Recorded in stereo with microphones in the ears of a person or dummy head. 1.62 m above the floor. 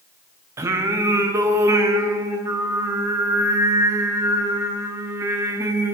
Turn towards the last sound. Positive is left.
turn(degrees=-15)  # may be behind; listen again after turning